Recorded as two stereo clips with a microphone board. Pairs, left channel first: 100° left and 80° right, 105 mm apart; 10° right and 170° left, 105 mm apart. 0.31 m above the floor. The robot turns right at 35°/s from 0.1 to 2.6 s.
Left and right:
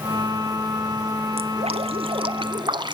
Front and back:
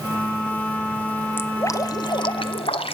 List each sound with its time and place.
1.4 s dripping: 80° right, 1.1 m; by 3.0 s 40° right, 1.1 m